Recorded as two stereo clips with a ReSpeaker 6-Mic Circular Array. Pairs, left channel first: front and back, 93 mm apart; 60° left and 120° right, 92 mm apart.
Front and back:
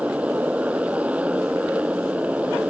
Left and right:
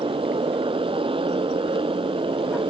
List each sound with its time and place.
0.0 s a motorcycle: 105° right